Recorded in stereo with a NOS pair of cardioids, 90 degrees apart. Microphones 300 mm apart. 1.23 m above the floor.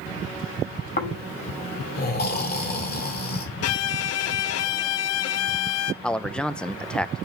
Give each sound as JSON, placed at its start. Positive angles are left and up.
{"t": 1.0, "sound": "snoring", "azimuth_deg": 35, "distance_m": 2.0}
{"t": 3.6, "sound": "a violin", "azimuth_deg": 65, "distance_m": 0.5}
{"t": 6.0, "sound": "a man speaking", "azimuth_deg": 5, "distance_m": 0.6}